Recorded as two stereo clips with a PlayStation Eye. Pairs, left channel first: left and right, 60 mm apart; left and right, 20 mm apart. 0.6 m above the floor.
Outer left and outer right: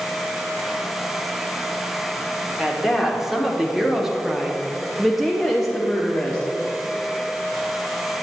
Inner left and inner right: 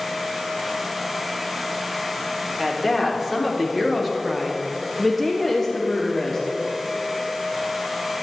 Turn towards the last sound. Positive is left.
turn(degrees=5)  # may be behind; listen again after turning